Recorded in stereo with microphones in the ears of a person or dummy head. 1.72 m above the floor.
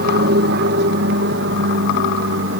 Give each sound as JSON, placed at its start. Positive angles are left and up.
{"t": 0.0, "sound": "an aircraft", "side_deg": -60}